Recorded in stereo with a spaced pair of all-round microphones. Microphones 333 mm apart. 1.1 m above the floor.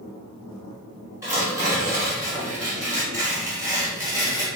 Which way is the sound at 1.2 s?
10° right (ahead or behind).